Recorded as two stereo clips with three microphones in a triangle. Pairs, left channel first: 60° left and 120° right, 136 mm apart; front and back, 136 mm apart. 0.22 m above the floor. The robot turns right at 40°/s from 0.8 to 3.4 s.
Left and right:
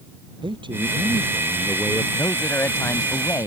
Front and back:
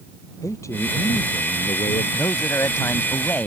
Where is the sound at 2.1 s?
5° left; by 3.5 s 55° left.